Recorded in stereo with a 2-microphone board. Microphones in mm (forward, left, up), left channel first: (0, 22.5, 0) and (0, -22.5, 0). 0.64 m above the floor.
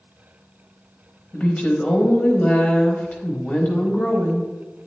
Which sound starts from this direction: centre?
A woman speaking, at 1.3 s.